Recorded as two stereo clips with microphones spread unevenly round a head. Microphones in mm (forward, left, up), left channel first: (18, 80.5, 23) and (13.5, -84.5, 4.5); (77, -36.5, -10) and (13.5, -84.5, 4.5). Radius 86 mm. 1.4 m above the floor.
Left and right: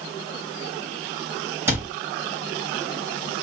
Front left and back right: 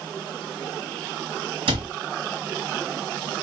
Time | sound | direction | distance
1.7 | a cupboard door | 170° right | 1.6 m